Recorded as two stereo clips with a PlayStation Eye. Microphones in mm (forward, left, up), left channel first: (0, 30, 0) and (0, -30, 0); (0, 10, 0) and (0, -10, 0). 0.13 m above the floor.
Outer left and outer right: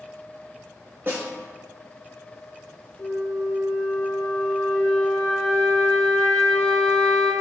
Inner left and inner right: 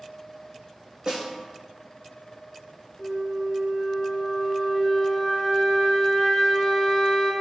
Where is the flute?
10° left (ahead or behind), 1.8 m.